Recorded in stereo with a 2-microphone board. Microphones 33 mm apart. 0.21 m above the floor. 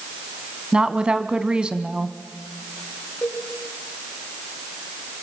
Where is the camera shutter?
I don't hear a camera shutter.